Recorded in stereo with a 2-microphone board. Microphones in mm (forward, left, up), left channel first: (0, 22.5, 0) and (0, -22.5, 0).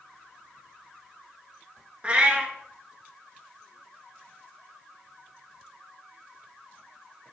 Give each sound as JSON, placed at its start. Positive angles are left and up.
{"t": 2.0, "sound": "a cat meowing", "side_deg": -30, "distance_m": 0.5}